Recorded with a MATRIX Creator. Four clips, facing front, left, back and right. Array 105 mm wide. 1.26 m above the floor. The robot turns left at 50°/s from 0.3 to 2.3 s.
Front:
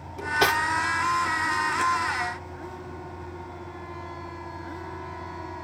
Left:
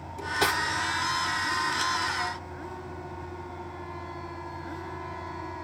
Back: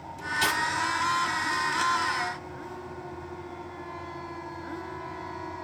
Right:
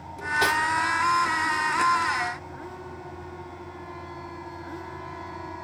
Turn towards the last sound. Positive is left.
turn(degrees=-90)